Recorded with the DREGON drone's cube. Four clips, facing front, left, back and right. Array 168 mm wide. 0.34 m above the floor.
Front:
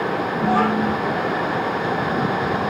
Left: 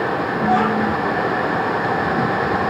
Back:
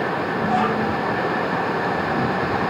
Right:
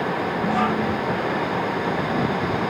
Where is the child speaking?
50° left, 5.5 m.